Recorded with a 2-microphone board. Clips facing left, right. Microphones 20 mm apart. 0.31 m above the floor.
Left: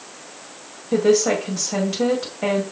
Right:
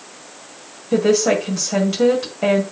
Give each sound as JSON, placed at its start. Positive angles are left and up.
{"t": 0.9, "sound": "a woman speaking", "side_deg": -5, "distance_m": 1.9}